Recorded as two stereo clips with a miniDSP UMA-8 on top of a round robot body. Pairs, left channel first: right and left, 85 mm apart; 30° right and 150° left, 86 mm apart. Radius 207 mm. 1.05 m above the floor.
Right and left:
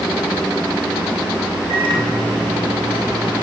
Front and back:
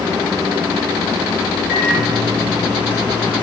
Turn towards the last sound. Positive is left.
turn(degrees=70)